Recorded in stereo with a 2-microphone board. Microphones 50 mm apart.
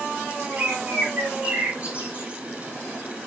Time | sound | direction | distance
0.5 | a bird | 30° right (ahead or behind) | 3 m